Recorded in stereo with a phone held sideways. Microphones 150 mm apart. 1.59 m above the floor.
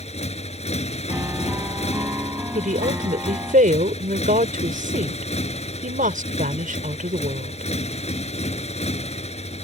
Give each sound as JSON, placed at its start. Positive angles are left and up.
{"t": 0.0, "sound": "a motorcycle", "side_deg": 45}
{"t": 1.1, "sound": "a piano", "side_deg": -15}
{"t": 2.5, "sound": "a woman speaking", "side_deg": -60}